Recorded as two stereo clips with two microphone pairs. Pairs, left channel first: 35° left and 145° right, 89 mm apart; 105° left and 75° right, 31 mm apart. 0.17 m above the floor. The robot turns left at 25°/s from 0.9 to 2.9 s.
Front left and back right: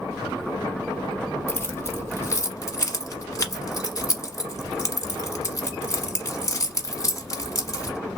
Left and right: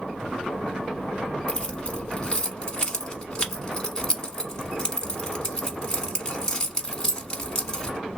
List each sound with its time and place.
1.5 s keys jangling: 85° left, 1.1 m; by 8.0 s 50° left, 1.1 m